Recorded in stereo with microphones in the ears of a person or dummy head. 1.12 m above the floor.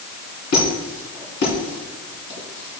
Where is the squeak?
55° left (ahead or behind), 3 m.